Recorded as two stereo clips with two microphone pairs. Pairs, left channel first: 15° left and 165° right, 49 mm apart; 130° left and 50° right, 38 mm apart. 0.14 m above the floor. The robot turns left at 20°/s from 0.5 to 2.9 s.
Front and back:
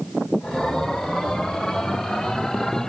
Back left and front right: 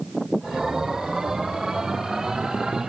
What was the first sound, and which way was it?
Only background noise.